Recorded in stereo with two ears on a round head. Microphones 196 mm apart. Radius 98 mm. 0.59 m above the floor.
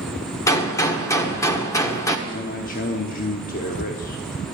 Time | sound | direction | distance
0.5 | a gunshot | 15° left (ahead or behind) | 1.4 m
2.3 | a man speaking | 40° left (ahead or behind) | 1.1 m